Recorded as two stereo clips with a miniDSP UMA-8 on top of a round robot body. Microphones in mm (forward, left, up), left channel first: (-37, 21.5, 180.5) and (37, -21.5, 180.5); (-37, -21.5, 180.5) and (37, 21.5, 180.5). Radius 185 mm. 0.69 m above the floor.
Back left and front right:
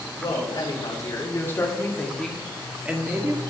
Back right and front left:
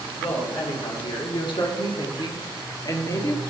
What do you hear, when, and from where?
0.2 s a woman speaking: 170° right, 3.5 m; by 3.4 s 90° right, 2.5 m